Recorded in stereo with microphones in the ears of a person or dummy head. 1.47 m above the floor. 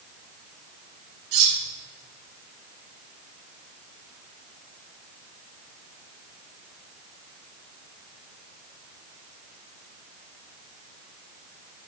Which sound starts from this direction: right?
Cutlery clinking, at 1.3 s.